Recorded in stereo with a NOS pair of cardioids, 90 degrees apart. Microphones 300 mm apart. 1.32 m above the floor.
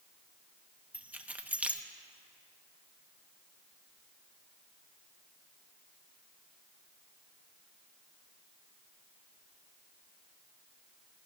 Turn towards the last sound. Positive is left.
turn(degrees=-5)